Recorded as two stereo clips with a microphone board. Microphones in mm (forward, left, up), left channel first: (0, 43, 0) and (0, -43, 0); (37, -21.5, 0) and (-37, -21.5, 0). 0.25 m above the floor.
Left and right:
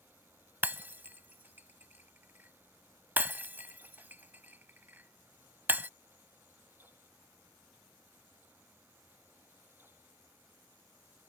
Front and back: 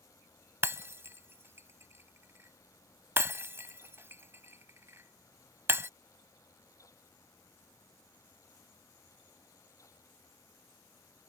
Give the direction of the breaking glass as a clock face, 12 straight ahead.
5 o'clock.